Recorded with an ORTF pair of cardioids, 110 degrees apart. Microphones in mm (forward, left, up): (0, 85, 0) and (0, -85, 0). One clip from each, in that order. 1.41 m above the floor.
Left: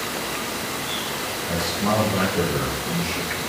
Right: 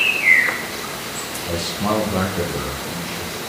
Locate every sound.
1.4 s a man speaking: 60° right, 1.2 m; by 3.4 s 50° left, 1.3 m